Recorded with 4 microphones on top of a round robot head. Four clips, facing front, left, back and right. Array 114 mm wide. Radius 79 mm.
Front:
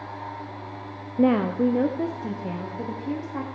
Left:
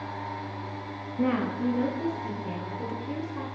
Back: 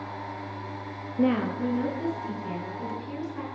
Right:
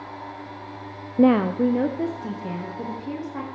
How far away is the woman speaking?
About 0.5 m.